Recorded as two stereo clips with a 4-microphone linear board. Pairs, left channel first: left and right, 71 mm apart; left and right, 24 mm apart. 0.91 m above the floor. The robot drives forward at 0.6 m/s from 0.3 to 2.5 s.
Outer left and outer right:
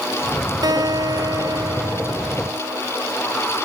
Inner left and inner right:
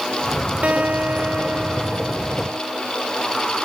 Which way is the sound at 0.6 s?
80° right.